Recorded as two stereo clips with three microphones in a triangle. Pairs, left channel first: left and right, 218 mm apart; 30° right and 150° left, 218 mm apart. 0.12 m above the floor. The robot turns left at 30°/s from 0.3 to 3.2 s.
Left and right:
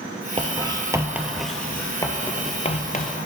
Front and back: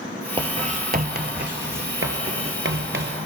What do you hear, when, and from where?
0.4 s writing: 145° right, 0.9 m; by 3.3 s 130° left, 0.9 m